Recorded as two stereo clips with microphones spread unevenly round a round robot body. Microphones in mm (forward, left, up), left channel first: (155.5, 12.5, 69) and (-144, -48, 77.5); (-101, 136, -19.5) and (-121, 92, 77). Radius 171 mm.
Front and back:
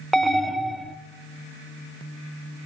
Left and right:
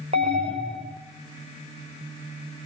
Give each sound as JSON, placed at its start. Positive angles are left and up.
{"t": 0.1, "sound": "an alarm", "azimuth_deg": -80, "distance_m": 1.1}